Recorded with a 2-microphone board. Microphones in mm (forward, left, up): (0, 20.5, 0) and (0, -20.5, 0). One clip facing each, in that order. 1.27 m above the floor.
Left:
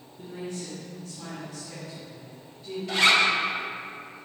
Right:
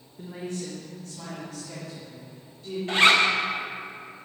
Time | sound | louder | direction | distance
0.2 | a woman speaking | right 2 dB | 70° right (ahead or behind) | 1.2 m
2.9 | a zipper | right 2 dB | 35° right (ahead or behind) | 0.7 m